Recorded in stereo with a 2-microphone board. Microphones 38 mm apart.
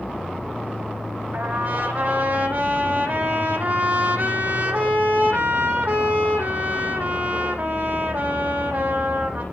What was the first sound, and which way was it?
A trumpet, 40° right (ahead or behind).